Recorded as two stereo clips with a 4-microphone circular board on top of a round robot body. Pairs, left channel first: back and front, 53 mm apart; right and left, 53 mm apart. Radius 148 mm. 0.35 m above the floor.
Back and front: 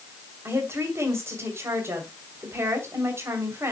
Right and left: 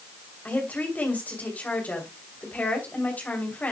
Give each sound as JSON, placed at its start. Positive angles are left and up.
{"t": 0.5, "sound": "a woman speaking", "azimuth_deg": -35, "distance_m": 3.0}